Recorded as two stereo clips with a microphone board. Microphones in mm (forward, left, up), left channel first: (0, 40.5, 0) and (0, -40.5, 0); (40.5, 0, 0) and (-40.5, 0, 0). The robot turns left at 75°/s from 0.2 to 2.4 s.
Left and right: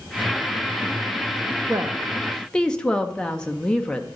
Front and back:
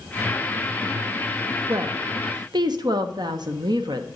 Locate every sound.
1.7 s a woman speaking: 140° right, 0.8 m; by 4.1 s 170° left, 0.8 m